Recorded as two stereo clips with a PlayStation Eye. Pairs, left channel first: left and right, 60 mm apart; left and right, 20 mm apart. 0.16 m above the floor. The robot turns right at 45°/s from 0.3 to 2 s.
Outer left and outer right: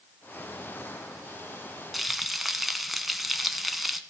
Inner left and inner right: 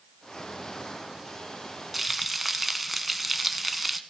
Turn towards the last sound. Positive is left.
turn(degrees=-5)  # may be behind; listen again after turning